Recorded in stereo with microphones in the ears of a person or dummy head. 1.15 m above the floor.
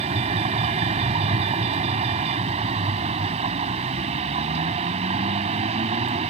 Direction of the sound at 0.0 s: 40° right (ahead or behind).